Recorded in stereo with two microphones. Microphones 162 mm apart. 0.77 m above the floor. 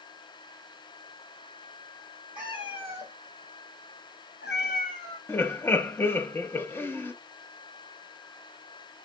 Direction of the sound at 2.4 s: 30° left (ahead or behind).